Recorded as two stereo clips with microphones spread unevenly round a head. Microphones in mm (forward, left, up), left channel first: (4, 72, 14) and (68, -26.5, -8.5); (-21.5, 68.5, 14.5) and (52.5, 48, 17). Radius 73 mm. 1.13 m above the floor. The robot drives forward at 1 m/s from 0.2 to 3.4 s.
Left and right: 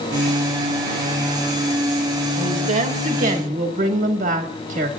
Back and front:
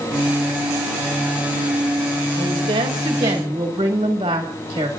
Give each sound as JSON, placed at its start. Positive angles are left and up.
{"t": 2.4, "sound": "a woman speaking", "azimuth_deg": -40, "distance_m": 2.5}